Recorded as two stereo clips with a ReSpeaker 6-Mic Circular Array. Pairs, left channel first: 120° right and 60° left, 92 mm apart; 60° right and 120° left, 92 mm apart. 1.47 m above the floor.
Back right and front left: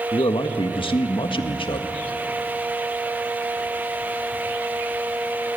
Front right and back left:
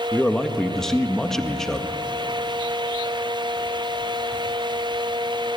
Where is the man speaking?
145° right, 1.6 m.